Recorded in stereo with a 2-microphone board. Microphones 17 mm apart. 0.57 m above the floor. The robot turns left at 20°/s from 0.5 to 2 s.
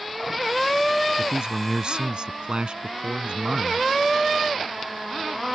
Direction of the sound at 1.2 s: 45° right (ahead or behind).